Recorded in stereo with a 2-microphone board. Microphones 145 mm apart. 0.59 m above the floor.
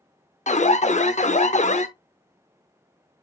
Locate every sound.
0.5 s an alarm: 55° left (ahead or behind), 0.8 m